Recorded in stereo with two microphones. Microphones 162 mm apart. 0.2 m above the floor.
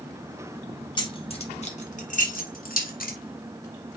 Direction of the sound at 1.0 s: 30° left (ahead or behind).